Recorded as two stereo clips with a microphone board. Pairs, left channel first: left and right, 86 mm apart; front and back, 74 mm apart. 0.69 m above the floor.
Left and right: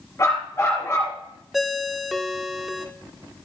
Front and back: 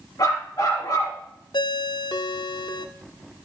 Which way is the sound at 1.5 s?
Straight ahead.